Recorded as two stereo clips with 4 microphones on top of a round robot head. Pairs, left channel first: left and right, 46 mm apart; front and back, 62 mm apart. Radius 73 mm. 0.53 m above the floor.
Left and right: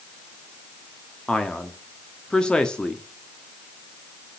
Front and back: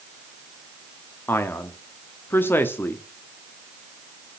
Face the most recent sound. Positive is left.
turn(degrees=30)